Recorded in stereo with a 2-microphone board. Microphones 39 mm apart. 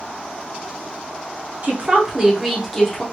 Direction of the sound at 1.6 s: 35° right (ahead or behind).